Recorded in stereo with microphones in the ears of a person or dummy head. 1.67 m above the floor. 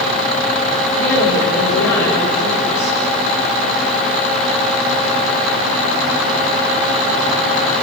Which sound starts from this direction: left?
A woman speaking, at 0.9 s.